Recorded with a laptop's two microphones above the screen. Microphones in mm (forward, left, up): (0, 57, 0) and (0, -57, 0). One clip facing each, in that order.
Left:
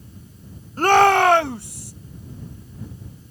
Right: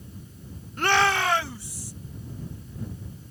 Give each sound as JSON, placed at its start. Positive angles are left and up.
{"t": 0.8, "sound": "a shout", "side_deg": 35}